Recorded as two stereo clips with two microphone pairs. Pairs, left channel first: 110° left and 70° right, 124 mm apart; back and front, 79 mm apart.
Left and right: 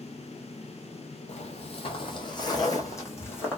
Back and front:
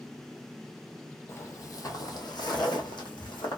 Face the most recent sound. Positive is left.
turn(degrees=-175)